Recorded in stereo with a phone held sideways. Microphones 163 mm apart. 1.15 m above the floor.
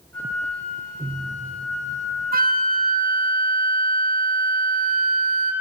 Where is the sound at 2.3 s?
65° right (ahead or behind), 0.8 m.